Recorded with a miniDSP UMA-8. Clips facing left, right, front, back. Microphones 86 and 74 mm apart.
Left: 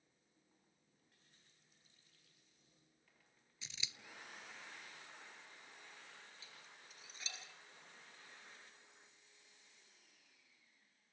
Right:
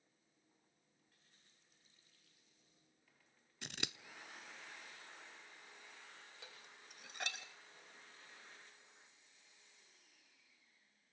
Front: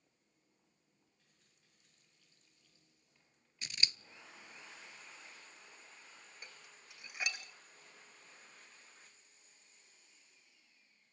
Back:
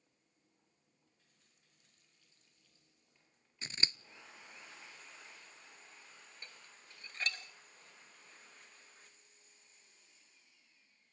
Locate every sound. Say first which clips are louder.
3.6 s scissors: right 7 dB, back 1 dB; 120° right, 0.6 m
6.4 s dishes clattering: right 2 dB, even; 75° right, 1.8 m